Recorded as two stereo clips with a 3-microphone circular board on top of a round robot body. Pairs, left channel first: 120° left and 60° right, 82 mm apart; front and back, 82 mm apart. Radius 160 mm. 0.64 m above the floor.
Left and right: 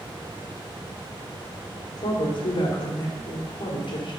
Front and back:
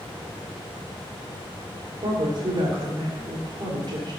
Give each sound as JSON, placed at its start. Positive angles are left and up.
{"t": 2.0, "sound": "a woman speaking", "azimuth_deg": 145, "distance_m": 2.0}